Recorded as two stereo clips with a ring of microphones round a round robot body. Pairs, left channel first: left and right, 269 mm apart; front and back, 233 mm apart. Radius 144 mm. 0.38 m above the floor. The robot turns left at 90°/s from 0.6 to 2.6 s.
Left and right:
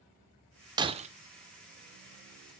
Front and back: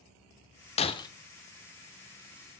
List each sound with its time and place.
0.8 s breaking glass: 30° right, 0.5 m; by 1.1 s 60° right, 0.5 m